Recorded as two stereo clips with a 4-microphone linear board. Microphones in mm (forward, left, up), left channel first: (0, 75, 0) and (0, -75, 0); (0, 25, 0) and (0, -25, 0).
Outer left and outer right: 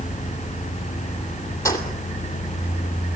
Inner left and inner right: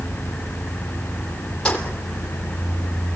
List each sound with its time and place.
1.6 s keys jangling: 20° left (ahead or behind), 3 m